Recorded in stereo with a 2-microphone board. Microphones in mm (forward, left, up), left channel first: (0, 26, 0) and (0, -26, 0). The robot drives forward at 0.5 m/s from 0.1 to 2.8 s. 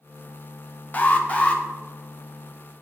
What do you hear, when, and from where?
0.9 s an alarm: 30° left (ahead or behind), 0.6 m; by 1.6 s 25° left (ahead or behind), 0.9 m